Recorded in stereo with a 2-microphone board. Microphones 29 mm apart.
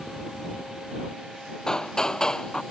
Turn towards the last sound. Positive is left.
turn(degrees=25)  # may be behind; listen again after turning